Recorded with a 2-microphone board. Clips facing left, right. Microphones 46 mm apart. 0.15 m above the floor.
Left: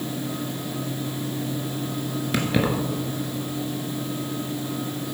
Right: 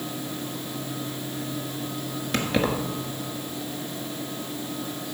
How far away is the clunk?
I don't hear a clunk.